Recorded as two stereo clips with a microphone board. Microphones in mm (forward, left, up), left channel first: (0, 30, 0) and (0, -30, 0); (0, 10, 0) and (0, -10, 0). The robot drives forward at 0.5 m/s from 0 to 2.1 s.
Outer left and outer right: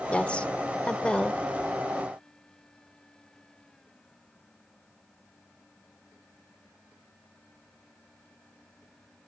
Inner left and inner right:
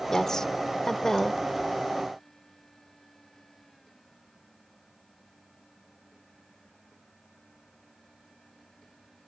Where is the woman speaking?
20° left (ahead or behind); by 1.4 s 15° left (ahead or behind).